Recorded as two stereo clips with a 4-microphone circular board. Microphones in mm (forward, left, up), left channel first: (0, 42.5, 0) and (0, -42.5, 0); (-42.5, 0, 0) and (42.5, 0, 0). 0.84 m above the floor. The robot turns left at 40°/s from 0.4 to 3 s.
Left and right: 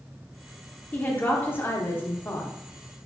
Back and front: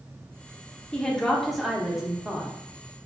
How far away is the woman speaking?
About 0.7 m.